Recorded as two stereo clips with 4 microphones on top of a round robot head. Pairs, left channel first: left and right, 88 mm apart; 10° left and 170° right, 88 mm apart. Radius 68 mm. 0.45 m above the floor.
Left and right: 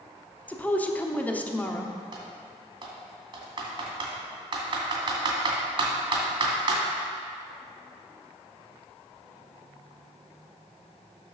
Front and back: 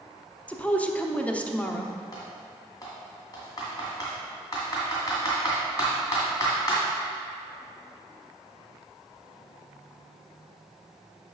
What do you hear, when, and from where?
0.5 s a woman speaking: 55° left, 0.8 m
2.1 s typing on a keyboard: 55° right, 2 m